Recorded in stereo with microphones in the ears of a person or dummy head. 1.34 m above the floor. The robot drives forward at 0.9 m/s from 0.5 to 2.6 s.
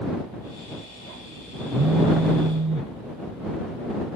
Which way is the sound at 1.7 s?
80° right.